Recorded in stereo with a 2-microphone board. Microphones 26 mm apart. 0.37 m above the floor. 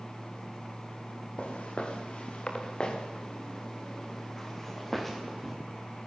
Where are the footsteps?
50° left (ahead or behind), 5 m; by 5.5 s centre (ahead or behind), 4.5 m.